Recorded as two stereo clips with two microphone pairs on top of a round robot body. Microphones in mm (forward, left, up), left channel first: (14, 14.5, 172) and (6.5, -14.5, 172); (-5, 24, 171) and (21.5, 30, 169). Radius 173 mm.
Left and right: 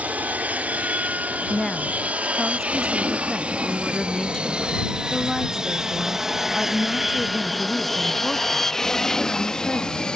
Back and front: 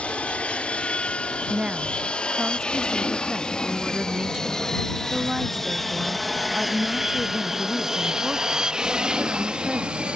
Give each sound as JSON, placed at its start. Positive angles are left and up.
{"t": 0.0, "sound": "an aircraft", "azimuth_deg": -125}
{"t": 1.5, "sound": "a woman speaking", "azimuth_deg": 5}